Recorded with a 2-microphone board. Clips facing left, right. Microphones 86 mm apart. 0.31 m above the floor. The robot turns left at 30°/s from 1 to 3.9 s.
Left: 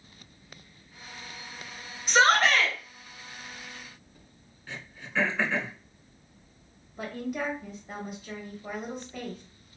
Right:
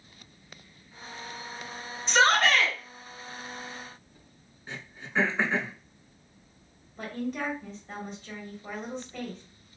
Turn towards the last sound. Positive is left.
turn(degrees=10)  # may be behind; listen again after turning